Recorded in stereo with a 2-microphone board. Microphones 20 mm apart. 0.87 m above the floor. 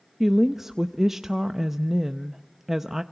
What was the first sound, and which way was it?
A woman speaking, 20° right (ahead or behind).